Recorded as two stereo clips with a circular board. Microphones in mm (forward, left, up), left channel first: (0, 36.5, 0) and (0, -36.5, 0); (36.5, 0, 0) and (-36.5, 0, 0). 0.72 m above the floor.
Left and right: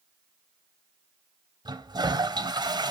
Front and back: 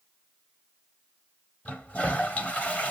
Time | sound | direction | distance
1.6 | a toilet flushing | 70° right | 1.2 m